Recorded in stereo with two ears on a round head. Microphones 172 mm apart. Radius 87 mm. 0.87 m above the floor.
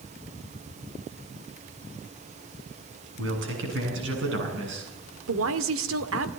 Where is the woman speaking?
75° right (ahead or behind), 2.0 m.